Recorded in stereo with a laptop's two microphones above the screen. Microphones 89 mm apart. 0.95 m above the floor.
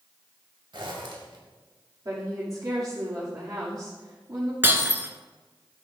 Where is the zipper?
65° right (ahead or behind), 1.6 m.